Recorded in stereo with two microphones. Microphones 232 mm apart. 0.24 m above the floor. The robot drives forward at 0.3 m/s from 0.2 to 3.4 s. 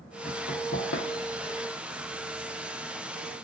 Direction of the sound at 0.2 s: 50° left (ahead or behind).